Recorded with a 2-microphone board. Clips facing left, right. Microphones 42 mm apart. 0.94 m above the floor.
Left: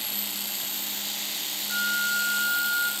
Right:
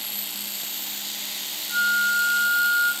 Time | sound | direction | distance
1.7 | a flute | 15° left (ahead or behind) | 3 m